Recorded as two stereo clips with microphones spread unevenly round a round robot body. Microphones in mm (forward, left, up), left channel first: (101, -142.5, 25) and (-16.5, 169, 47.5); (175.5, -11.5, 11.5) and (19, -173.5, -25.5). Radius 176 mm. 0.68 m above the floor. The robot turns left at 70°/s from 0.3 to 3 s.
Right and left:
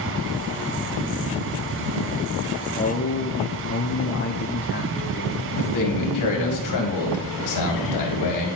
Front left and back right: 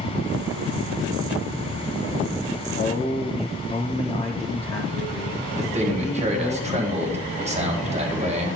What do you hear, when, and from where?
2.8 s a man speaking: straight ahead, 1.0 m; by 6.6 s 20° right, 1.0 m
5.6 s a man speaking: 85° right, 1.8 m